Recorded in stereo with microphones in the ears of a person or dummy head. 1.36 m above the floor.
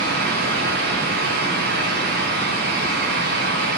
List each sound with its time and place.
0.0 s a fan: 55° right (ahead or behind), 0.9 m